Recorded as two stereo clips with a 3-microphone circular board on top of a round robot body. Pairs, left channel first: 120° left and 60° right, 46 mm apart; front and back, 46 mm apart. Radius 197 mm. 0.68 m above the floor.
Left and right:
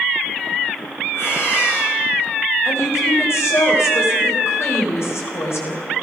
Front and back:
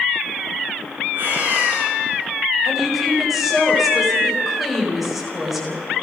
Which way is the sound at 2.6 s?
95° left.